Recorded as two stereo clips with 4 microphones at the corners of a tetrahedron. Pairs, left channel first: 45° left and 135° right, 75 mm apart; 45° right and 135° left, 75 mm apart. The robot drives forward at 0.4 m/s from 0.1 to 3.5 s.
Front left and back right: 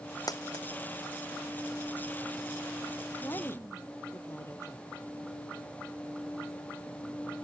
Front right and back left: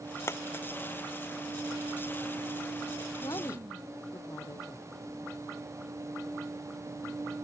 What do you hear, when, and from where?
0.3 s a dropped coin: 10° left
3.2 s a woman speaking: 10° right